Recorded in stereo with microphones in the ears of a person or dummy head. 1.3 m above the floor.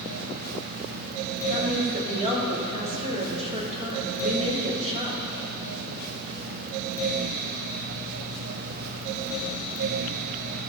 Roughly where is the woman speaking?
Right.